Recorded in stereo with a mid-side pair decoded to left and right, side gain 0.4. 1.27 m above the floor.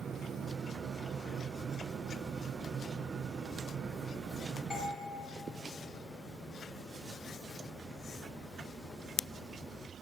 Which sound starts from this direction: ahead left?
A doorbell, at 4.7 s.